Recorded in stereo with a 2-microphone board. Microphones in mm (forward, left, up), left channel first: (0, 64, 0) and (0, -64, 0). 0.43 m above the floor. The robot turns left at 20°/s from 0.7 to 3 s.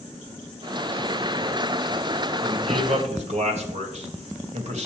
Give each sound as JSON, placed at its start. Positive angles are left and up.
{"t": 2.4, "sound": "a man speaking", "side_deg": -55, "distance_m": 1.9}